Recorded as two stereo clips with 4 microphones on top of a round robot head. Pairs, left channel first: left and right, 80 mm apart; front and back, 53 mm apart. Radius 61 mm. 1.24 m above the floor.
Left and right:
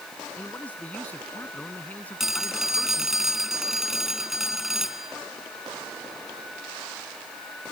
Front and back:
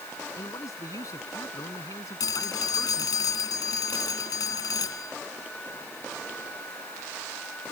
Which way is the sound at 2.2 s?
5° right.